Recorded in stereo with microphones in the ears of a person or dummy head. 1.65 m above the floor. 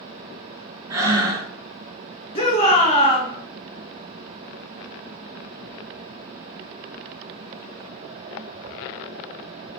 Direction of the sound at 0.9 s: 15° right (ahead or behind).